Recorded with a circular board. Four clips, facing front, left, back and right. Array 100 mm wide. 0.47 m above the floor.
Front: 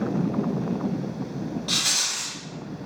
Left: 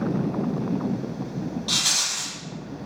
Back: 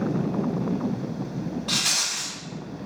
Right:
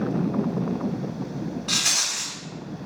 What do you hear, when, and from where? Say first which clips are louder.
1.7 s a rattle: even, back 1 dB; 110° right, 1.5 m